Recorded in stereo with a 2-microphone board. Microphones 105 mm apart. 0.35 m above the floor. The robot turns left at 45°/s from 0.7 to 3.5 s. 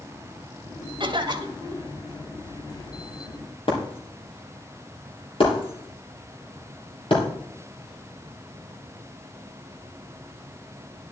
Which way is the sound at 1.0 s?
110° right.